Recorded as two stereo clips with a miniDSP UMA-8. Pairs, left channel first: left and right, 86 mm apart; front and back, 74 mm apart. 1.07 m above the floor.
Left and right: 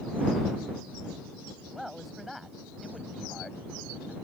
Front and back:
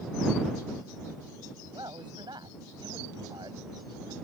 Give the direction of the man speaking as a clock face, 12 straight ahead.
6 o'clock.